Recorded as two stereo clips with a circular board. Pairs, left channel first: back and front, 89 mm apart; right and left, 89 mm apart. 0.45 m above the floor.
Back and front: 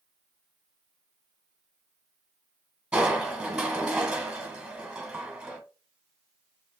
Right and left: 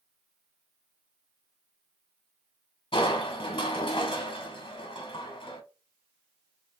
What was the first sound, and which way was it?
Crushing, 80° right.